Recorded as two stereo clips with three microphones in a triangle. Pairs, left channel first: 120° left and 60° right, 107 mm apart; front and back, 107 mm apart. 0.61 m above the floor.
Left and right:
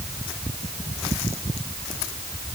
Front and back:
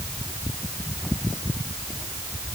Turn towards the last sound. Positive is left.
No sound to turn to.